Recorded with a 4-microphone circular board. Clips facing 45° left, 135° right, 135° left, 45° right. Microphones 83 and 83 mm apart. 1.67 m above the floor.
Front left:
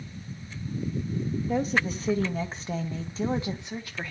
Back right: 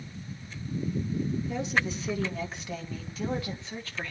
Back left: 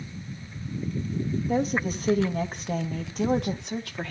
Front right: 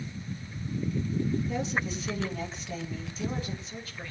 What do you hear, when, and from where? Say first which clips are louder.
1.5 s a woman speaking: front left 3 dB, back left 6 dB; 90° left, 2.5 m; by 4.1 s 125° left, 1.6 m